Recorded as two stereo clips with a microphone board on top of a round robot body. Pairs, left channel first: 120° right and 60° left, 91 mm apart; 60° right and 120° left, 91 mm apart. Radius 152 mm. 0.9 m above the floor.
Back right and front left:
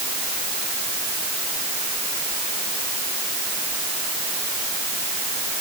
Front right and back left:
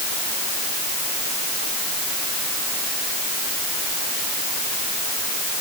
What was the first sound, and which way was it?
Only background noise.